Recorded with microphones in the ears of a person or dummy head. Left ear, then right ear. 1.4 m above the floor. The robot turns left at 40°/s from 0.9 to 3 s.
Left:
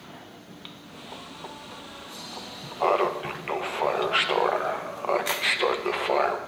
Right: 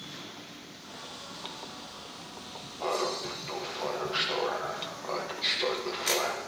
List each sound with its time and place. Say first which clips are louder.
2.8 s laughter: left 8 dB; 45° left (ahead or behind), 0.6 m; by 6.4 s 50° left (ahead or behind), 0.6 m